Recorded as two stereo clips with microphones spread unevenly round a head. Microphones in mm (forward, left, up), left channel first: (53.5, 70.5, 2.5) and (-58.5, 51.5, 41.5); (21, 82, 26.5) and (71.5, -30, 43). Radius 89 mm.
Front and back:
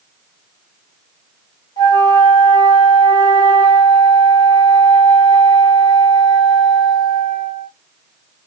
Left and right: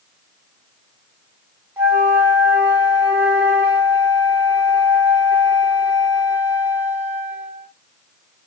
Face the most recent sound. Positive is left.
turn(degrees=-50)